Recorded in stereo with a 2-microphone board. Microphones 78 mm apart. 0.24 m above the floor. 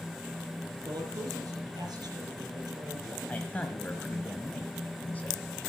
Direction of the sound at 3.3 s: 20° left (ahead or behind).